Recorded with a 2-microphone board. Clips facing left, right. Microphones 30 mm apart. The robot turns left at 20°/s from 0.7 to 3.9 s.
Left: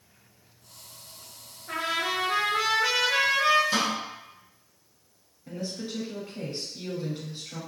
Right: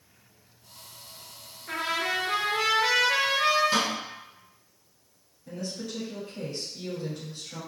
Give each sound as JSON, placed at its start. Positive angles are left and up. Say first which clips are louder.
{"t": 1.7, "sound": "a trumpet", "louder": "even", "azimuth_deg": -60, "distance_m": 1.2}
{"t": 3.7, "sound": "a snare drum", "louder": "even", "side_deg": -20, "distance_m": 1.3}
{"t": 5.5, "sound": "a woman speaking", "louder": "left 1 dB", "side_deg": 25, "distance_m": 1.6}